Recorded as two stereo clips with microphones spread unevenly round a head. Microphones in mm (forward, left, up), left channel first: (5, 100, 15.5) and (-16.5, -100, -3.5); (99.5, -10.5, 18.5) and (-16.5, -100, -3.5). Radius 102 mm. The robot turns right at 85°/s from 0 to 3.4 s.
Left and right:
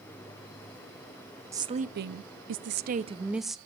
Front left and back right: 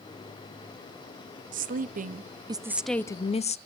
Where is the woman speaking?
170° right, 0.6 m; by 3.6 s 10° right, 0.6 m.